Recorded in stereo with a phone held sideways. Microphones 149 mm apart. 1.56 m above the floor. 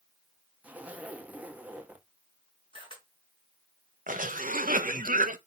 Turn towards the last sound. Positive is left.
turn(degrees=-70)  # may be behind; listen again after turning